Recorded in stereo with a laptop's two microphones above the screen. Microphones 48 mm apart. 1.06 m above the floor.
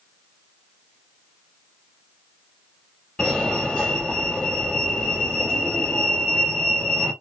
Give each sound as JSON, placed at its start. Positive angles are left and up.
{"t": 3.2, "sound": "a fire alarm", "side_deg": 15, "distance_m": 1.3}